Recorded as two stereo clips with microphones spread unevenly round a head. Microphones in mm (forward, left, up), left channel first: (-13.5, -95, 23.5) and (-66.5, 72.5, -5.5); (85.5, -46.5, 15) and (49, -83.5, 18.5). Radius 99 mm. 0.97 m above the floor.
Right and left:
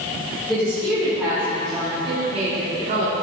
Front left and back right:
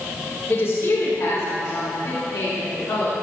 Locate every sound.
0.5 s a woman speaking: 10° left, 3 m; by 3.1 s 70° left, 2 m